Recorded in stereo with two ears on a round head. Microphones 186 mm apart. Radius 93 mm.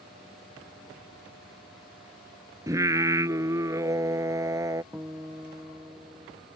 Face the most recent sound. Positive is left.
turn(degrees=-10)  # may be behind; listen again after turning